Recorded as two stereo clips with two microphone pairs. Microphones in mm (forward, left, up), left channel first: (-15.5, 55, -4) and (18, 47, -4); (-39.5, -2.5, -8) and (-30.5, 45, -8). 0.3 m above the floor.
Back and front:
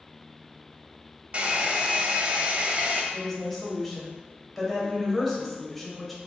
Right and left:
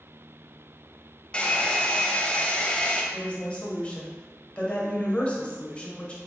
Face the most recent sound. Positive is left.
turn(degrees=-115)